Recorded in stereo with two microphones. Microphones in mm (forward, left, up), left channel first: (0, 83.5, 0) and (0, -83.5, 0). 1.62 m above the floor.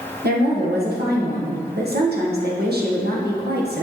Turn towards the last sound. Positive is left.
turn(degrees=-75)  # may be behind; listen again after turning